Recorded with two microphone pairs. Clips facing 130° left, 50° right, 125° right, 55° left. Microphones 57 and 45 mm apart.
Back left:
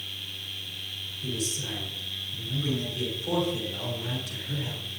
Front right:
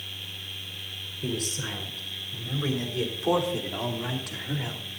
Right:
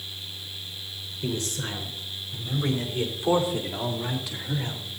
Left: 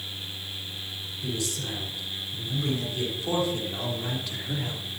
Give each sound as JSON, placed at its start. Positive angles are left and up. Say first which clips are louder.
{"t": 1.2, "sound": "a man speaking", "louder": "front right 2 dB, right 2 dB", "azimuth_deg": -75, "distance_m": 4.5}